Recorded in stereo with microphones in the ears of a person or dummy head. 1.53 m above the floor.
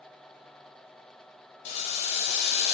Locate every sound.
1.6 s boiling: 35° left (ahead or behind), 0.6 m